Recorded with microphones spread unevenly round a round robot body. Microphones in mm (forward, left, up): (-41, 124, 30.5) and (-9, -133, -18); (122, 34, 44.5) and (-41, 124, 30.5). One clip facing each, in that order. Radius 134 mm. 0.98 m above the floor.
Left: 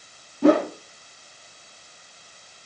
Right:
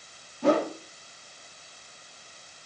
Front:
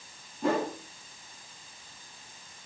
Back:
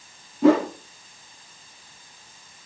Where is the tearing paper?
No tearing paper in this recording.